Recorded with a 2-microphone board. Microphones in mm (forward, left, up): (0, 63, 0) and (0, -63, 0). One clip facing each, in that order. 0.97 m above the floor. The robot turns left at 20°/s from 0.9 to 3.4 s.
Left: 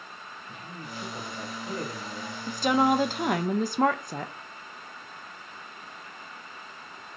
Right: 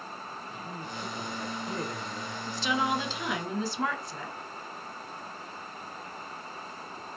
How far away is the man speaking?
About 1.9 m.